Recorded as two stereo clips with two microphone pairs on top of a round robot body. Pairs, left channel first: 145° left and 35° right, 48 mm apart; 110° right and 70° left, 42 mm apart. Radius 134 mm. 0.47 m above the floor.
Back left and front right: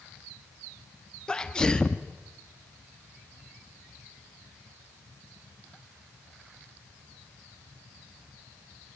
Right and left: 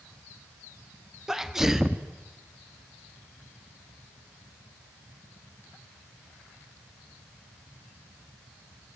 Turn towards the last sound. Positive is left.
turn(degrees=95)